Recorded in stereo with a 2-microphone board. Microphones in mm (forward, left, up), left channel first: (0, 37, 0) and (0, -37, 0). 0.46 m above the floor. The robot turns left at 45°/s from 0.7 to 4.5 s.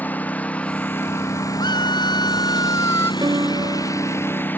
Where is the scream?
100° left; by 3.1 s 30° left.